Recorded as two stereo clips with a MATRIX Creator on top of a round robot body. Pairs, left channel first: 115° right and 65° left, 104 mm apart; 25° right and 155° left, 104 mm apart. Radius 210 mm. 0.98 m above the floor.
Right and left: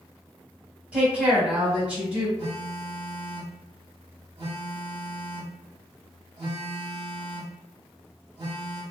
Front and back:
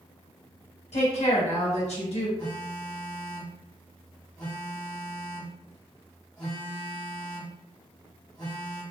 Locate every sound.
0.9 s a woman speaking: 10° right, 1.6 m
2.4 s a phone buzzing: 30° left, 0.6 m